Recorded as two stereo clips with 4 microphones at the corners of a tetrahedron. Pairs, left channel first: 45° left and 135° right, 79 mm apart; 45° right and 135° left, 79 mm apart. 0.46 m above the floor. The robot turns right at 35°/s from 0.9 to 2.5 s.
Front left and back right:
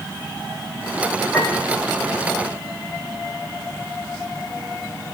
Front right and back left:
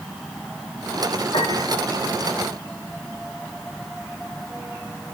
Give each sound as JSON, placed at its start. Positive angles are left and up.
{"t": 1.3, "sound": "a piano", "azimuth_deg": -50, "distance_m": 5.5}